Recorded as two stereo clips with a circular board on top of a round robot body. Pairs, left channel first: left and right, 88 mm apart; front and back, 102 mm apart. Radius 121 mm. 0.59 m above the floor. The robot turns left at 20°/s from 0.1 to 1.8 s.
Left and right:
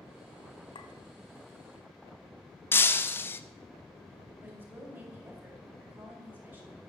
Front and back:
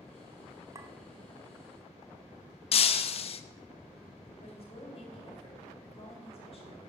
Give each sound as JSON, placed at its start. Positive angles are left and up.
{"t": 0.8, "sound": "a clink", "azimuth_deg": 120, "distance_m": 0.8}
{"t": 2.7, "sound": "breaking glass", "azimuth_deg": 25, "distance_m": 0.5}
{"t": 4.4, "sound": "a woman speaking", "azimuth_deg": -20, "distance_m": 3.5}